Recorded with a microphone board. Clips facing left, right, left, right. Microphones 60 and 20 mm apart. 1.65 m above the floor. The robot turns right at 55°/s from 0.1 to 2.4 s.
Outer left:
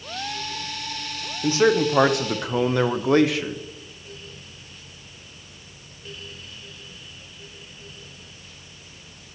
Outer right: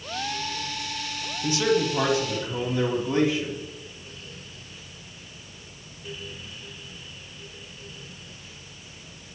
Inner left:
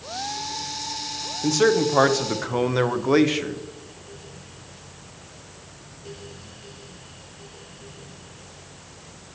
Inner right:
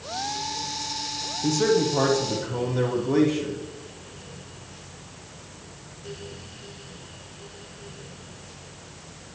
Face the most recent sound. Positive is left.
turn(degrees=85)